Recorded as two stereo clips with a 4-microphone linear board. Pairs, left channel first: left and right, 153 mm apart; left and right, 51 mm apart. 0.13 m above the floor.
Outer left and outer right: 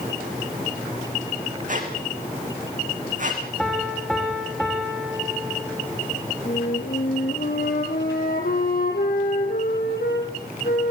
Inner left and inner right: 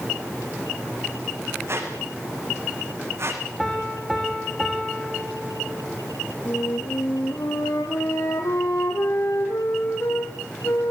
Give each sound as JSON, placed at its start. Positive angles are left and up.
{"t": 1.7, "sound": "a squeak", "side_deg": -55, "distance_m": 6.0}
{"t": 3.6, "sound": "a piano", "side_deg": 5, "distance_m": 6.5}
{"t": 6.5, "sound": "a flute", "side_deg": 75, "distance_m": 5.5}